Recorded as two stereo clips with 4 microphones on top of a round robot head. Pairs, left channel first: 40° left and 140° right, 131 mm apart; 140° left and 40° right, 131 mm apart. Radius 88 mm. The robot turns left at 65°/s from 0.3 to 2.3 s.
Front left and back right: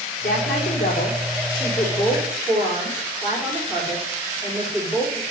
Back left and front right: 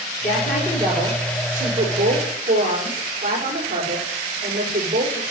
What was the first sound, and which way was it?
A woman speaking, 60° left.